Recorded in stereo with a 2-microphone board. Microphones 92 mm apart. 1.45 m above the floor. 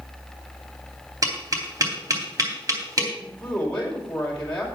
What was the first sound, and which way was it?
Tapping, 40° right (ahead or behind).